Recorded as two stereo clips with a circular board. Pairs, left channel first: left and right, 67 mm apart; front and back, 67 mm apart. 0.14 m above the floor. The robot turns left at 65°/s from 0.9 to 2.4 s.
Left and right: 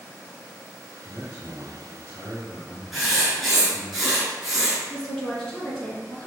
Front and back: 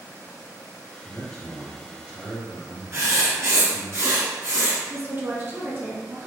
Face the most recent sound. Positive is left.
turn(degrees=160)